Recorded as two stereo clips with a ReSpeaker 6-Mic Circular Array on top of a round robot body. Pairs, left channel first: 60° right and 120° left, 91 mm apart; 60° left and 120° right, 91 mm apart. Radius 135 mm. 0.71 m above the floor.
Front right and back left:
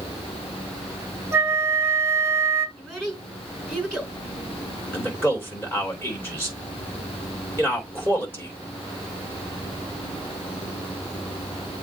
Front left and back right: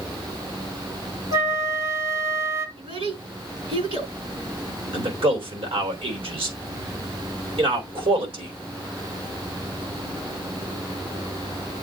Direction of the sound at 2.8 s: 140° right.